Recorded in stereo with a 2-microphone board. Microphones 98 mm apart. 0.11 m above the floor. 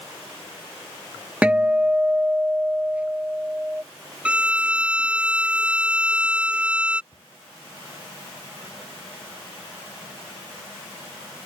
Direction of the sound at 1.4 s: 15° right (ahead or behind).